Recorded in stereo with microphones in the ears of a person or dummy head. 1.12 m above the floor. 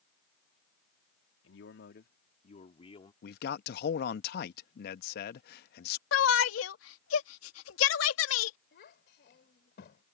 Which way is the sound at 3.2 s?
60° left (ahead or behind).